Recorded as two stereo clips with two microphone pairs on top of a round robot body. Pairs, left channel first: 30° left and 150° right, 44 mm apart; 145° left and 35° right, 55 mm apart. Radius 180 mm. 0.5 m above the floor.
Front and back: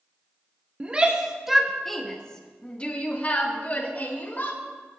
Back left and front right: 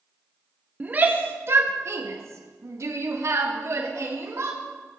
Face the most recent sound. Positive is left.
turn(degrees=0)